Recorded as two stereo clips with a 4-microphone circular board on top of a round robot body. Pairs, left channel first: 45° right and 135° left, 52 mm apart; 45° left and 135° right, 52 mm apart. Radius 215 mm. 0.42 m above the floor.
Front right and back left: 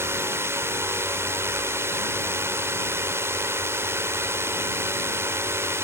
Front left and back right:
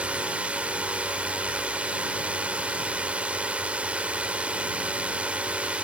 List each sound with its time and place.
0.0 s a drone: 160° left